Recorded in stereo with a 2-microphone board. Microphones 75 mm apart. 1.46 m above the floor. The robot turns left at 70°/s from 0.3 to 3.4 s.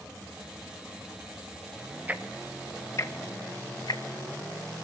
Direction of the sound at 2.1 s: 20° right (ahead or behind).